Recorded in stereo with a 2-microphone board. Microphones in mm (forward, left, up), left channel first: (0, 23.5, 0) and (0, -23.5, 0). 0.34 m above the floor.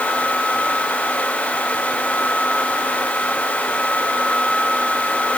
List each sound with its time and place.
Only background noise.